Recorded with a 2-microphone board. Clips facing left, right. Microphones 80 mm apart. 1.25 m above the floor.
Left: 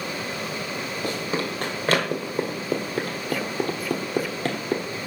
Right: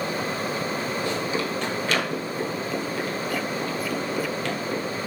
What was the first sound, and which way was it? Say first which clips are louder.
Running footsteps: right 1 dB; 45° left (ahead or behind).